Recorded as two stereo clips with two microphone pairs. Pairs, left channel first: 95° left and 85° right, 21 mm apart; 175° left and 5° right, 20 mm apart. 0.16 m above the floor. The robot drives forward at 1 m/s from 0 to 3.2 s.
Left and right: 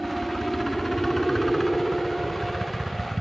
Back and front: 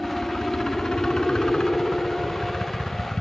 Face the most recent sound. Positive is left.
turn(degrees=170)